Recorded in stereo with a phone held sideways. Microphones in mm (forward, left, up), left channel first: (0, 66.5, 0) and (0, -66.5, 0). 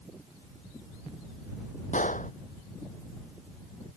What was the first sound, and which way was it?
A gunshot, 75° left (ahead or behind).